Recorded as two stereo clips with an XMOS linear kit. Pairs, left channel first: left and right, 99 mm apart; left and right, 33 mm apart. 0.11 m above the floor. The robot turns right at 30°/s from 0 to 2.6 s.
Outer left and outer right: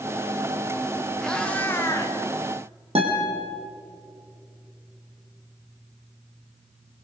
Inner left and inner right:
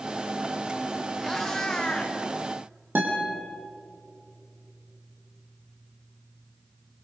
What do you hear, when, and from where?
1.2 s a cat meowing: 5° left (ahead or behind), 3 m; by 2.2 s 35° left (ahead or behind), 3 m
3.0 s a guitar: 75° right (ahead or behind), 5 m